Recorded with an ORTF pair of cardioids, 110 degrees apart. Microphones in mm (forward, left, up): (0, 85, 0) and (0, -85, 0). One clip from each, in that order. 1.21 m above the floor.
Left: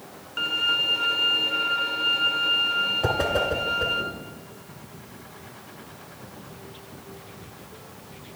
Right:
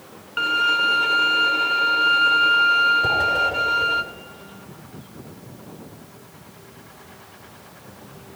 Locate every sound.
0.4 s a violin: 30° right, 1.3 m
3.0 s a whoosh: 35° left, 4.5 m